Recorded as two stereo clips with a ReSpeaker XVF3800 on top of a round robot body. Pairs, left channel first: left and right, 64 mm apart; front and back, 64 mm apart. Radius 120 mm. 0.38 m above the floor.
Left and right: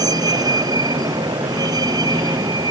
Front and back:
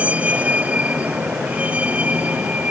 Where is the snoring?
I don't hear snoring.